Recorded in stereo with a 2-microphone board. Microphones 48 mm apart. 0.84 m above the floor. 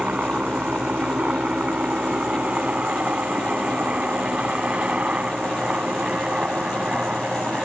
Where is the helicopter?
25° right (ahead or behind).